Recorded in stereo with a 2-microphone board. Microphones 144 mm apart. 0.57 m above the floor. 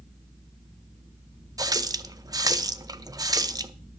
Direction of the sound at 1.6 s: 25° right (ahead or behind).